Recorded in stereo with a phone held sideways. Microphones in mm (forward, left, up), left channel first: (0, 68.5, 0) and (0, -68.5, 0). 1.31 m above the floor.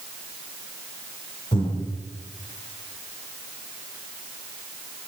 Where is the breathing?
35° left (ahead or behind), 3 m.